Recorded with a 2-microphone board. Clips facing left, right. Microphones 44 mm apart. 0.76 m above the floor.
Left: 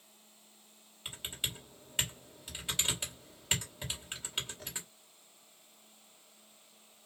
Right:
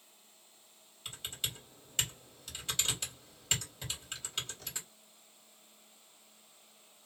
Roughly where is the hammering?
No hammering in this recording.